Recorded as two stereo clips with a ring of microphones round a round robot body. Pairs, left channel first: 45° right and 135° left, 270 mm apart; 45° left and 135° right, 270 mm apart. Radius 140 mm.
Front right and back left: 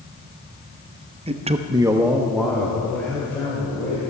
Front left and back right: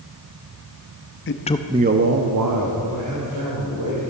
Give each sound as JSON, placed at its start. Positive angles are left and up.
{"t": 1.3, "sound": "a man speaking", "azimuth_deg": 70, "distance_m": 0.9}